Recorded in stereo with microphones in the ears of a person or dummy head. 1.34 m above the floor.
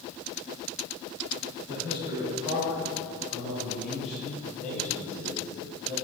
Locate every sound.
1.7 s a man speaking: 30° right (ahead or behind), 4.5 m; by 6.0 s 20° left (ahead or behind), 6.5 m